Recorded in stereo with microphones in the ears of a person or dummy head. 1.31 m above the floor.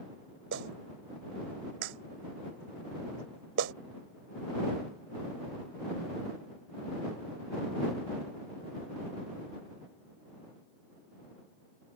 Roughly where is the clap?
Right.